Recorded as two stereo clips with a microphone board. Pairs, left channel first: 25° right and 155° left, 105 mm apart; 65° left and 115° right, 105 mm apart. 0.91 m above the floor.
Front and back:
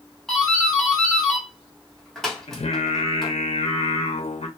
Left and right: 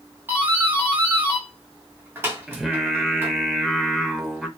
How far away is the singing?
About 0.6 m.